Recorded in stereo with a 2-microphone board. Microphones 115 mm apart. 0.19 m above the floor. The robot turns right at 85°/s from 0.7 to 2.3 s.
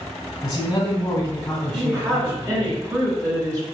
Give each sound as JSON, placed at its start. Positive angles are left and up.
{"t": 0.4, "sound": "a man speaking", "side_deg": 25, "distance_m": 1.5}
{"t": 1.7, "sound": "a woman speaking", "azimuth_deg": -140, "distance_m": 1.5}